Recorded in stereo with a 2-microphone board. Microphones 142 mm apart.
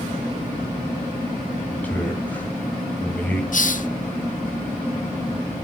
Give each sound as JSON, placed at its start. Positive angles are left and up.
{"t": 1.7, "sound": "a man speaking", "side_deg": 10, "distance_m": 4.0}
{"t": 3.5, "sound": "a hiss", "side_deg": 60, "distance_m": 0.8}